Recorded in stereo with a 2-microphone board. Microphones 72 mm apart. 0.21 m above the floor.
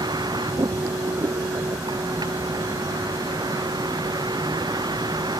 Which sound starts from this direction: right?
A vehicle, at 0.0 s.